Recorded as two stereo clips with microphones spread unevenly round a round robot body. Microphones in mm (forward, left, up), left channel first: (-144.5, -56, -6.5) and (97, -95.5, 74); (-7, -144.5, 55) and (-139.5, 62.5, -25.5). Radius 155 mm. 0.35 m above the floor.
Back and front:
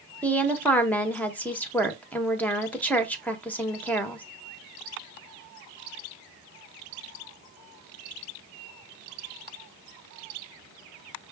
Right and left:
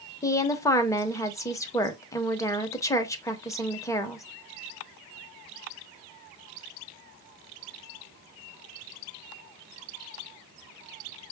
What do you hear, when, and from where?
0.2 s a woman speaking: 160° right, 0.9 m